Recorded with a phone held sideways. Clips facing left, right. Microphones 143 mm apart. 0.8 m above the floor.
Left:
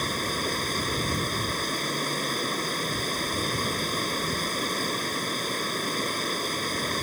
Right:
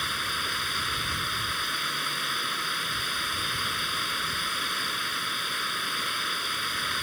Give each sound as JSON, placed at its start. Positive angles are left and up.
{"t": 0.0, "sound": "running water", "side_deg": 45}